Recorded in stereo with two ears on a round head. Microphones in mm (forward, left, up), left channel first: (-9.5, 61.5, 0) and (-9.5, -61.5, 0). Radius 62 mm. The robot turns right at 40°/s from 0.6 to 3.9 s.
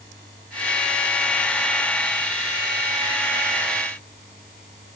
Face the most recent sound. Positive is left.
No sound to turn to.